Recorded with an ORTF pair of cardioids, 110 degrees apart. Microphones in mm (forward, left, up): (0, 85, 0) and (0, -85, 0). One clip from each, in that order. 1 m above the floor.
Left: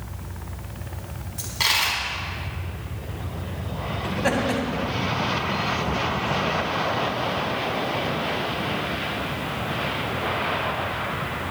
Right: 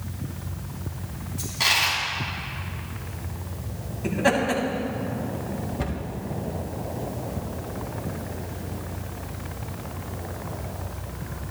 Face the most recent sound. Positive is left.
turn(degrees=-35)